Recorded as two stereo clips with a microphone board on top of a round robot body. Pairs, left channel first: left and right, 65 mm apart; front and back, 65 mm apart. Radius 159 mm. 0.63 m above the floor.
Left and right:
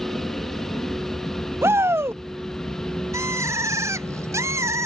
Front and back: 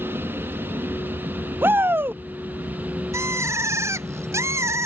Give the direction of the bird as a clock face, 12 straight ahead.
4 o'clock.